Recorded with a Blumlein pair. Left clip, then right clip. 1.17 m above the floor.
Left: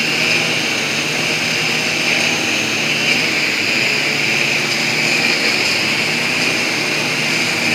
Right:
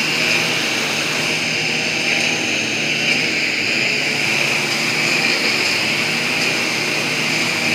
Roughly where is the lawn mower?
Ahead.